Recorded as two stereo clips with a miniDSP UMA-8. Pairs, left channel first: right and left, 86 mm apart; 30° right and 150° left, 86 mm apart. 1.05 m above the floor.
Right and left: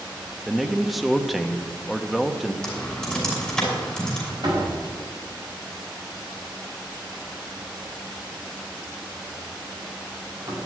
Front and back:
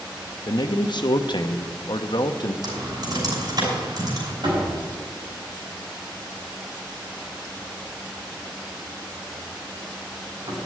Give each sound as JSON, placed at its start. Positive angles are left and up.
{"t": 0.5, "sound": "a man speaking", "azimuth_deg": 0, "distance_m": 1.1}
{"t": 2.6, "sound": "typing on a keyboard", "azimuth_deg": -170, "distance_m": 6.0}
{"t": 4.4, "sound": "a door slam", "azimuth_deg": 120, "distance_m": 6.0}